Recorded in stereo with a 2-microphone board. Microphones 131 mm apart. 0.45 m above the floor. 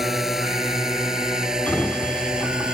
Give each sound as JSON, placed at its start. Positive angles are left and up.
{"t": 0.0, "sound": "a drone", "side_deg": 0}
{"t": 1.7, "sound": "a sliding door", "side_deg": 15}